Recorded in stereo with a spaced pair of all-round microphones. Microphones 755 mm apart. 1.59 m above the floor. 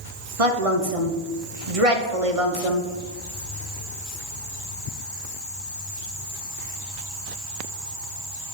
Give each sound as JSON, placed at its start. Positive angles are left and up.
{"t": 0.4, "sound": "a woman speaking", "side_deg": -45, "distance_m": 1.0}